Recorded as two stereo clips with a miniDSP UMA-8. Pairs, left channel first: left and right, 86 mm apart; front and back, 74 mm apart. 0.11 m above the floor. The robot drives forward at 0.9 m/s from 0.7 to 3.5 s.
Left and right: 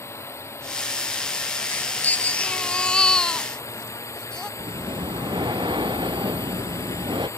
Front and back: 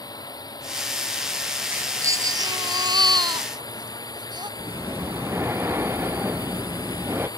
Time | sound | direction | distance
0.0 | a drone | 30° left | ?
1.7 | a baby crying | 140° left | ?
4.6 | breathing | 120° right | ?